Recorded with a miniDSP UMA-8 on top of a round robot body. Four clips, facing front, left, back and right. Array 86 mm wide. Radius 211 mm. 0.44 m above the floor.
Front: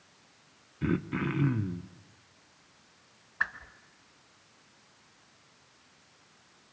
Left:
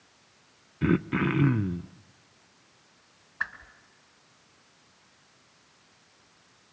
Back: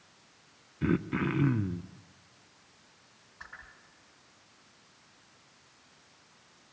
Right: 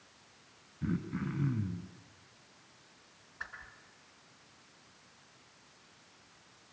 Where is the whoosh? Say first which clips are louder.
Left 11 dB, front 14 dB; 25° left, 2 m.